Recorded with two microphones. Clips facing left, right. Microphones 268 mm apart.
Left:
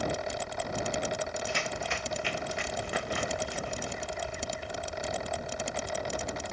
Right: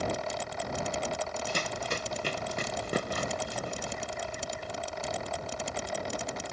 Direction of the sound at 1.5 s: 45° right (ahead or behind).